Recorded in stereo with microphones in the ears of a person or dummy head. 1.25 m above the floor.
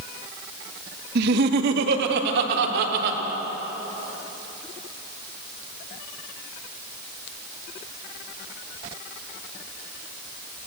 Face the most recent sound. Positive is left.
turn(degrees=-65)  # may be behind; listen again after turning